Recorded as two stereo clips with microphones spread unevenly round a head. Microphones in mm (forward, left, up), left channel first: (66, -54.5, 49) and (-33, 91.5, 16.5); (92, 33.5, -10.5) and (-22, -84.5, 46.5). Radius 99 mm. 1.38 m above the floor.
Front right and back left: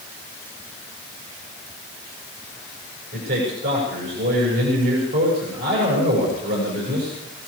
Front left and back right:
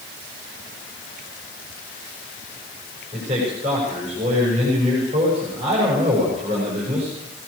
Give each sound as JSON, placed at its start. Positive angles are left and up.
{"t": 3.1, "sound": "a man speaking", "azimuth_deg": 160, "distance_m": 6.5}